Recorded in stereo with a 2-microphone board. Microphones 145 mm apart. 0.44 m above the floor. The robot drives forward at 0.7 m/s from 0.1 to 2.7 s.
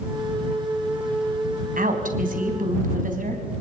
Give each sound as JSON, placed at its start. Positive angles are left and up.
{"t": 1.8, "sound": "a woman speaking", "side_deg": -70, "distance_m": 3.5}